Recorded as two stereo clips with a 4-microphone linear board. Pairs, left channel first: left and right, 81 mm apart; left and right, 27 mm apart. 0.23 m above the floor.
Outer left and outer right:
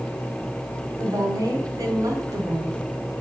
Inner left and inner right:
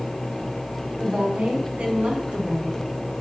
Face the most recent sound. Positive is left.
turn(degrees=-50)  # may be behind; listen again after turning